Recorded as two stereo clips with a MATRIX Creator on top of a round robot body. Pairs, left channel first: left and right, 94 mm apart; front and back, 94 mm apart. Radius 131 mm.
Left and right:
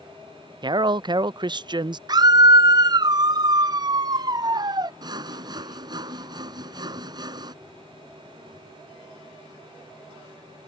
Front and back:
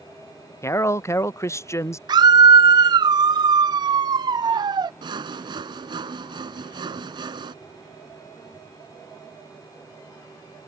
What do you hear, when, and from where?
0.6 s a man speaking: 55° right
2.1 s a scream: 135° right
5.0 s sawing: 140° right